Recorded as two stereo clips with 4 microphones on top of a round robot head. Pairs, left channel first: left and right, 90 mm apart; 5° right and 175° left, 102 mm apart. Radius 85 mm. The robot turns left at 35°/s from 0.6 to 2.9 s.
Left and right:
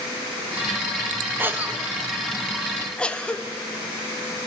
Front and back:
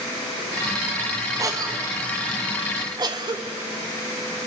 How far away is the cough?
About 0.9 m.